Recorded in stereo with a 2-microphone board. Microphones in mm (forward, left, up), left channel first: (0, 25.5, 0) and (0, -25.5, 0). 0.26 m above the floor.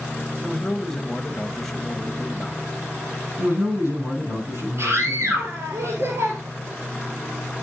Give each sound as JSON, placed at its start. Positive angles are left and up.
{"t": 0.4, "sound": "a man speaking", "side_deg": 5, "distance_m": 1.1}
{"t": 3.4, "sound": "a man speaking", "side_deg": -70, "distance_m": 7.0}
{"t": 4.8, "sound": "a scream", "side_deg": -55, "distance_m": 4.5}